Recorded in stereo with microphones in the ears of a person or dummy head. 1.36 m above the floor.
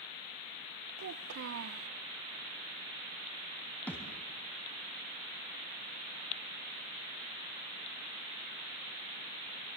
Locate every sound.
1.0 s a child speaking: 70° right (ahead or behind), 0.7 m
3.9 s a thud: 5° left (ahead or behind), 3.5 m